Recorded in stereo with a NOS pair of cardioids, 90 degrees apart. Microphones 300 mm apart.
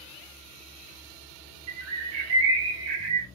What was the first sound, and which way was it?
A bird, 60° right.